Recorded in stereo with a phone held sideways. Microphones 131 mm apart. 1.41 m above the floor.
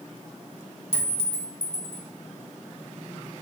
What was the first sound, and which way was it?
A clink, 45° left (ahead or behind).